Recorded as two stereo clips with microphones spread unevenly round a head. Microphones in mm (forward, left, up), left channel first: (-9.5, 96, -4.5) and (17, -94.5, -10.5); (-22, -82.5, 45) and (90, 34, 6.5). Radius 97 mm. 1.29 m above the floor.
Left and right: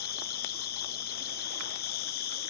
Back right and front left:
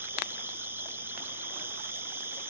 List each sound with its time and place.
0.0 s an insect: 100° left